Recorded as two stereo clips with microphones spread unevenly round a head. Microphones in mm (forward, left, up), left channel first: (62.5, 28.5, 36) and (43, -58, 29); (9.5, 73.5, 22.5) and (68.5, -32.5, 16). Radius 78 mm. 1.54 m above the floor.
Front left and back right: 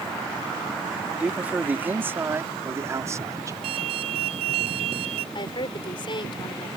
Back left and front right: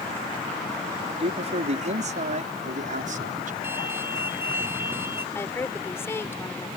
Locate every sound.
1.2 s a man speaking: 25° right; by 3.5 s 50° right
3.6 s an alarm: 140° right
5.3 s a woman speaking: 50° left